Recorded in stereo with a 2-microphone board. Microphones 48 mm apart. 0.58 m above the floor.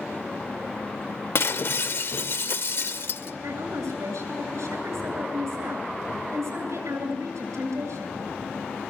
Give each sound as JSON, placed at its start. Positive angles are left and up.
{"t": 1.4, "sound": "breaking glass", "side_deg": 55, "distance_m": 0.6}
{"t": 3.4, "sound": "a woman speaking", "side_deg": -75, "distance_m": 8.5}